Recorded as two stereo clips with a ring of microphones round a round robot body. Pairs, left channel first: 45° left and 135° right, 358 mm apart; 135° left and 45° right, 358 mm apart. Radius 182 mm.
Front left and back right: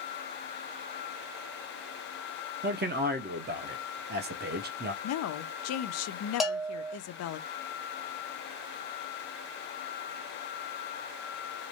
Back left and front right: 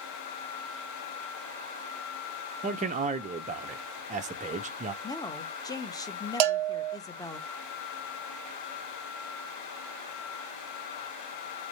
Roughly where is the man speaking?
Right.